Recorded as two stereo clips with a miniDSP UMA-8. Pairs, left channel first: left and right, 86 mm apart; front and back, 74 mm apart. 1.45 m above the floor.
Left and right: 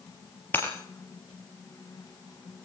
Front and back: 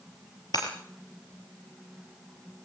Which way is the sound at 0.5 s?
25° left.